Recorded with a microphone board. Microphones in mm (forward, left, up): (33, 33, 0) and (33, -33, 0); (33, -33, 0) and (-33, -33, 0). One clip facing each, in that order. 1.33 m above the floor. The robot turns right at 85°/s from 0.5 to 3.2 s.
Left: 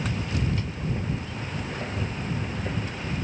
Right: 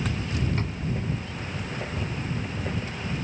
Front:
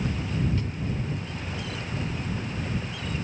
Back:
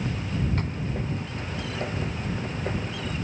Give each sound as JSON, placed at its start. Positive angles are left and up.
{"t": 0.6, "sound": "a drawer", "azimuth_deg": -140}